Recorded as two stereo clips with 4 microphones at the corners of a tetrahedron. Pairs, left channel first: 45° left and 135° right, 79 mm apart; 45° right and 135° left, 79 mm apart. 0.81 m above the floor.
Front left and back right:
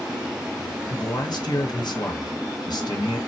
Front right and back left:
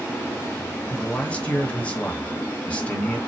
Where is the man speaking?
25° left, 0.8 m.